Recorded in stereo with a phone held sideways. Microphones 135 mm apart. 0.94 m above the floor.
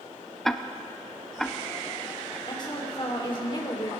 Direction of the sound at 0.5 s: 5° left (ahead or behind).